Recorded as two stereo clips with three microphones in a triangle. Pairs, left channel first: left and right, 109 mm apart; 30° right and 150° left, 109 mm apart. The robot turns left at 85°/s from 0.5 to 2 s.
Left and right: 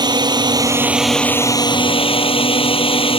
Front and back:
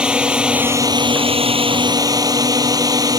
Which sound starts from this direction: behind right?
A drone, at 0.0 s.